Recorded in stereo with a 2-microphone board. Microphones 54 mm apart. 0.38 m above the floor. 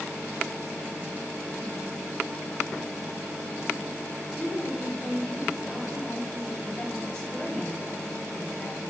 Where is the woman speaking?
15° left (ahead or behind), 2 m.